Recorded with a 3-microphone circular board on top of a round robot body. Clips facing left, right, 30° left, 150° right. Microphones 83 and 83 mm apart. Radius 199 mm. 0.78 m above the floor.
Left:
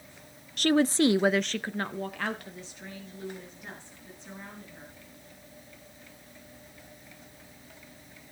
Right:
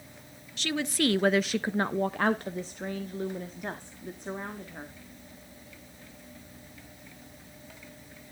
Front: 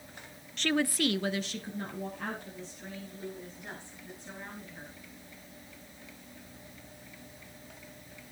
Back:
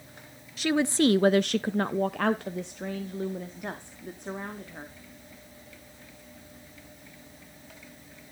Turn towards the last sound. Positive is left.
turn(degrees=-120)